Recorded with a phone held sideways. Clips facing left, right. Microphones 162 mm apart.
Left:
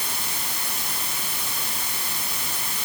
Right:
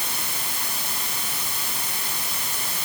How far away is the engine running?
I don't hear an engine running.